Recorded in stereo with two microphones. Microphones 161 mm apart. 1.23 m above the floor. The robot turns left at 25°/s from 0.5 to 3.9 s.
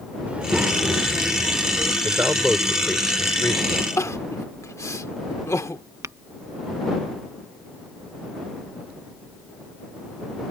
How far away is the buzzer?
I don't hear a buzzer.